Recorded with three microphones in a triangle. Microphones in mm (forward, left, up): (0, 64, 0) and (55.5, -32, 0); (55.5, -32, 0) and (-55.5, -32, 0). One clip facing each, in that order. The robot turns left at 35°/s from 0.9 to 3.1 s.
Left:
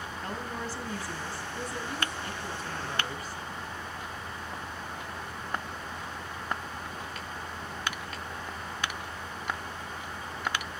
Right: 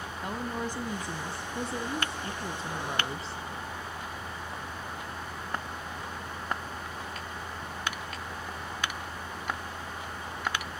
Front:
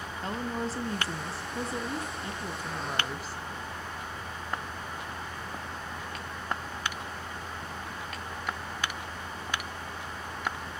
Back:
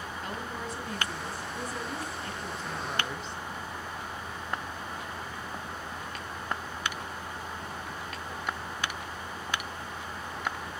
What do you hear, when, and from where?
0.2 s a woman speaking: 5° right, 1.2 m; by 3.4 s 80° right, 1.2 m